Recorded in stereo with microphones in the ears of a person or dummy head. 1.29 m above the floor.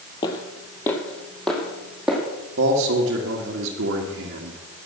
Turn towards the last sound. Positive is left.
turn(degrees=-60)  # may be behind; listen again after turning